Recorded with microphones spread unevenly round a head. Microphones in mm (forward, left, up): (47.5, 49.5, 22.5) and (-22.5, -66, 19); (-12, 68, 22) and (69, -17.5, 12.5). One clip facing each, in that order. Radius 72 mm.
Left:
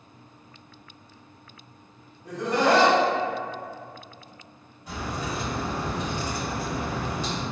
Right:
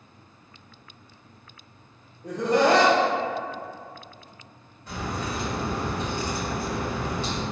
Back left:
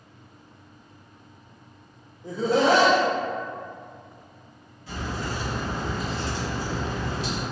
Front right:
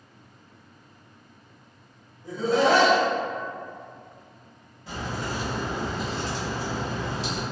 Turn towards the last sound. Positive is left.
turn(degrees=-20)